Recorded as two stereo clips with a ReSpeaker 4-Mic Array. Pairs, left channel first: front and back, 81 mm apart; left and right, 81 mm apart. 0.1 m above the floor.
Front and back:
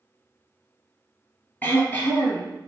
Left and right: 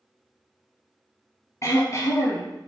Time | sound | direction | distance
1.6 | throat clearing | 60° left | 1.2 m